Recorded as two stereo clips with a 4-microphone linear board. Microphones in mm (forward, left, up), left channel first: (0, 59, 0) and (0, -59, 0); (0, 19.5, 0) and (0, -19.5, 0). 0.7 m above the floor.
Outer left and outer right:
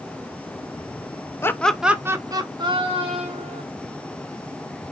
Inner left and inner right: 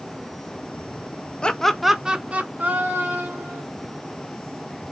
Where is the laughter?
20° left (ahead or behind), 0.6 m; by 3.6 s 55° right (ahead or behind), 1.6 m.